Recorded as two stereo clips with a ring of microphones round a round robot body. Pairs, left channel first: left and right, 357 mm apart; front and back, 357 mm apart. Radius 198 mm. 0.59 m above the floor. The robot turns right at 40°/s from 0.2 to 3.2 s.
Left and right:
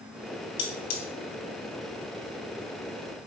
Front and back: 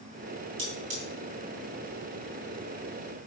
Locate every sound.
0.6 s cutlery clinking: 120° left, 2.5 m; by 1.0 s 135° left, 2.5 m